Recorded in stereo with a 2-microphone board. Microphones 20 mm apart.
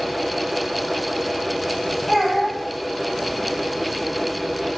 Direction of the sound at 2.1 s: Centre (ahead or behind).